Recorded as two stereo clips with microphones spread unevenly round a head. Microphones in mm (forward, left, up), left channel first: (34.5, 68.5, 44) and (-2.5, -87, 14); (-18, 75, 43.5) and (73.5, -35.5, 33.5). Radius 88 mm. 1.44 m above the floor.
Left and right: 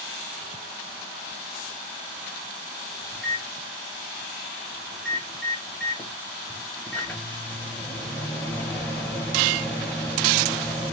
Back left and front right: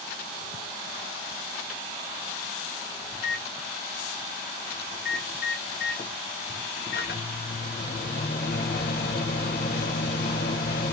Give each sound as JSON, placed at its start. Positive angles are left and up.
{"t": 3.1, "sound": "a microwave", "azimuth_deg": 155, "distance_m": 0.8}